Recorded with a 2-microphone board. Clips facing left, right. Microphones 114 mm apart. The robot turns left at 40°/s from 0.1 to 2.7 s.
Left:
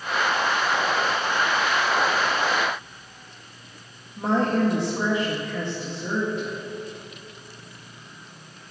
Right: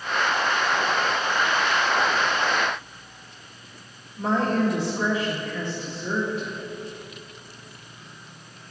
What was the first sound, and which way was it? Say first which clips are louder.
A woman speaking: left 1 dB; 50° left (ahead or behind).